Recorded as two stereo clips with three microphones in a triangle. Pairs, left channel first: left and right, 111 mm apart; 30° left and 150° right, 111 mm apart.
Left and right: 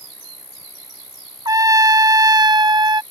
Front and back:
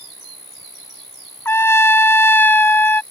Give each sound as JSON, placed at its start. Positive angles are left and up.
{"t": 0.0, "sound": "an insect", "azimuth_deg": -125}
{"t": 1.4, "sound": "a trumpet", "azimuth_deg": -40}